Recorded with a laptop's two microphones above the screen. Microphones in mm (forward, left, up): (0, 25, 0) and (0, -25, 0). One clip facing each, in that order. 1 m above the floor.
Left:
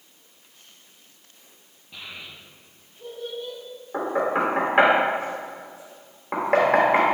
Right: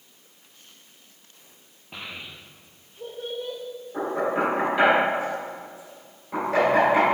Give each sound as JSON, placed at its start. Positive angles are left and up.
{"t": 1.9, "sound": "a child speaking", "side_deg": -45, "distance_m": 0.6}
{"t": 3.9, "sound": "knocking", "side_deg": 65, "distance_m": 3.0}